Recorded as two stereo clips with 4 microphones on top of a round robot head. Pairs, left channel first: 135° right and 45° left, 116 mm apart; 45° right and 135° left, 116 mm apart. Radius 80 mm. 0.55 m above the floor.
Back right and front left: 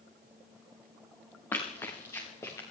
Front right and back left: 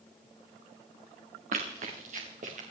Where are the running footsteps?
150° left, 3.5 m; by 2.6 s 160° left, 5 m.